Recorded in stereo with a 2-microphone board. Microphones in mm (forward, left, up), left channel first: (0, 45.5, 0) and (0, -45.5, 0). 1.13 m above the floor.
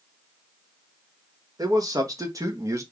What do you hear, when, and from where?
1.6 s a man speaking: 40° right (ahead or behind), 1.5 m; by 2.8 s 35° right (ahead or behind), 0.9 m